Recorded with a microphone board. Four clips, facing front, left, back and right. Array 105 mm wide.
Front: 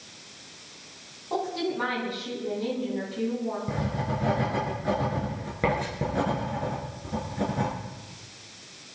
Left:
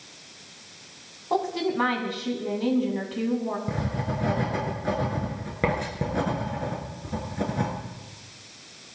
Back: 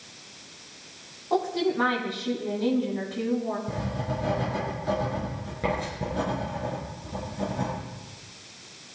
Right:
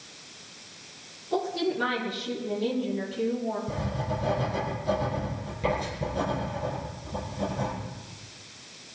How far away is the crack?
No crack in this recording.